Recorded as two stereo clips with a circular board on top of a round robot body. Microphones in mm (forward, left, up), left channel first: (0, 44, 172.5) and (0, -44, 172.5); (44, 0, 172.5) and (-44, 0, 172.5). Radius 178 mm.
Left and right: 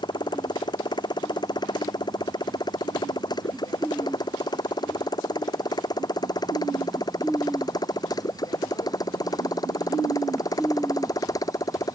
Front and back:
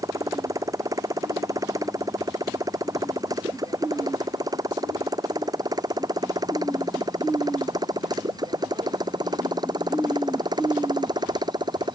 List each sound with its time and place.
0.0 s a motorcycle: 130° left; by 12.0 s 140° left